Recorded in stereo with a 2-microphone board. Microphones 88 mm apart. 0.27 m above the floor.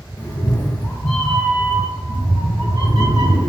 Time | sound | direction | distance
0.2 | a cat meowing | 40° left (ahead or behind) | 1.1 m